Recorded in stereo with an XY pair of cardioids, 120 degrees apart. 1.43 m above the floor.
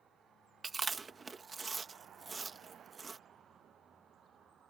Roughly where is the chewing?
Ahead right.